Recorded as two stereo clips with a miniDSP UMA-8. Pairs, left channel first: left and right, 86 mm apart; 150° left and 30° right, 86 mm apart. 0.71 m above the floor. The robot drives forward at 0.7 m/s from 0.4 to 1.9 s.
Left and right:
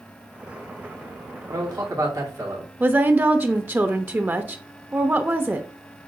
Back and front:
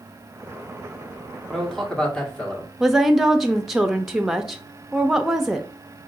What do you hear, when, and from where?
1.5 s a man speaking: 120° right, 1.6 m; by 2.7 s 130° right, 1.7 m
2.8 s a woman speaking: 110° right, 0.6 m